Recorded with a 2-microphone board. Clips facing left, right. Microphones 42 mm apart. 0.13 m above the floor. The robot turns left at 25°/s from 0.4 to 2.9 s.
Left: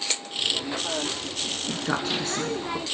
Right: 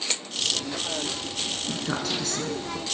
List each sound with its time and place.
1.7 s a woman speaking: 15° left (ahead or behind), 1.2 m; by 2.8 s 25° left (ahead or behind), 1.2 m